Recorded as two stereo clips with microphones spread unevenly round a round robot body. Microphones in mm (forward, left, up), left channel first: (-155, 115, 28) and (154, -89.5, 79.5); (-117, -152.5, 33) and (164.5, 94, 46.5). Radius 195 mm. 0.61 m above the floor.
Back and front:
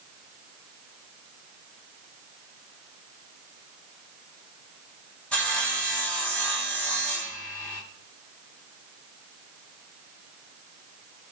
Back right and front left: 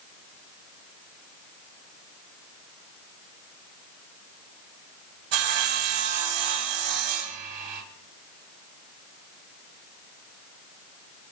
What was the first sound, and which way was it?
Sawing, 60° left.